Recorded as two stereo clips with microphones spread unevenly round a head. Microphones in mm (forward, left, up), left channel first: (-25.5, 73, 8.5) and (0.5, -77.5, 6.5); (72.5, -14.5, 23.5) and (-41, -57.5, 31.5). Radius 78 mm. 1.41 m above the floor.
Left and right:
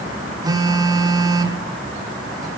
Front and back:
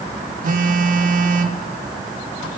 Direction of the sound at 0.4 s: 145° right.